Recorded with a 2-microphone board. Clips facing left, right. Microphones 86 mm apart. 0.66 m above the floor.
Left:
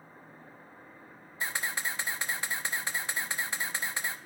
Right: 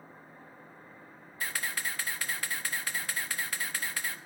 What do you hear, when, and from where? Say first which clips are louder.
1.4 s a camera shutter: left 1 dB; 20° left (ahead or behind), 0.6 m